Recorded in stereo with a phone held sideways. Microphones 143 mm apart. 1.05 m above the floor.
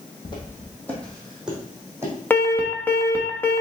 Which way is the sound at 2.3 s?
15° left (ahead or behind).